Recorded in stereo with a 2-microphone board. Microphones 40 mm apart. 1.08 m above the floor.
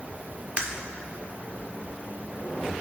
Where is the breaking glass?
30° right (ahead or behind), 1.6 m.